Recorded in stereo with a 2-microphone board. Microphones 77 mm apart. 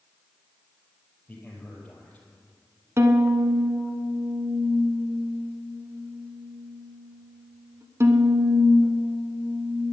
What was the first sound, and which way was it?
A man speaking, 15° left (ahead or behind).